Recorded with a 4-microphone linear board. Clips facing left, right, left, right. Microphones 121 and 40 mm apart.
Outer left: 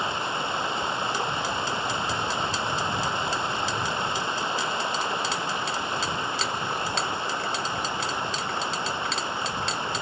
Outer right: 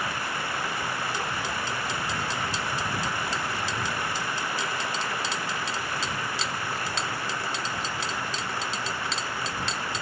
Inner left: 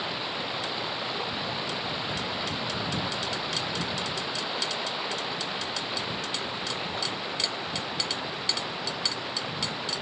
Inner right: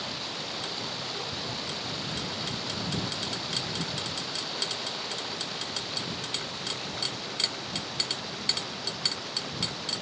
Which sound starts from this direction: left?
Running water, at 0.0 s.